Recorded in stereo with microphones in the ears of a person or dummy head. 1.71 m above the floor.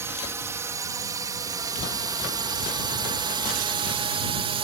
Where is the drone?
15° right (ahead or behind); by 4.7 s 25° right (ahead or behind).